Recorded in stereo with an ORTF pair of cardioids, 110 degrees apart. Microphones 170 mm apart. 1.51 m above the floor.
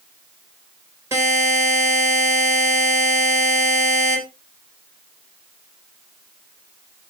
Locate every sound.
1.1 s a buzzer: 15° right, 4 m